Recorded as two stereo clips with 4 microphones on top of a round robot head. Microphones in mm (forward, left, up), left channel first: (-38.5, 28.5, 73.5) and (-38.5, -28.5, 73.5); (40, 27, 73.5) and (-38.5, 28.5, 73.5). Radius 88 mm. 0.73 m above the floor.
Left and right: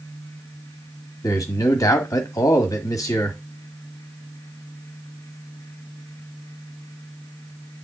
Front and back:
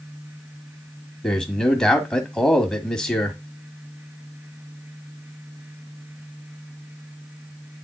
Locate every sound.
1.2 s a man speaking: 90° left, 1.6 m